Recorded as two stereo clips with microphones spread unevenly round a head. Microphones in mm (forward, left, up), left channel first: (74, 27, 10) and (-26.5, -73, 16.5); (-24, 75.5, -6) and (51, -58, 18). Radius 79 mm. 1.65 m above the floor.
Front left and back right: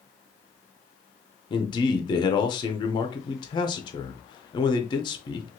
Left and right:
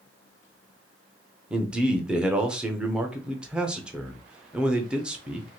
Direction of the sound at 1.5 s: 5° left.